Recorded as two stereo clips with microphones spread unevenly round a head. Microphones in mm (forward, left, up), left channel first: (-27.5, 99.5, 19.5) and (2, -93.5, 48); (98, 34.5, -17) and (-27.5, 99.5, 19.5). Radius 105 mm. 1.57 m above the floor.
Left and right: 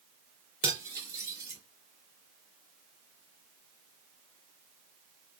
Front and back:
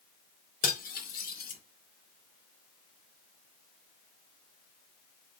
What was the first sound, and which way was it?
Cutlery clinking, 10° right.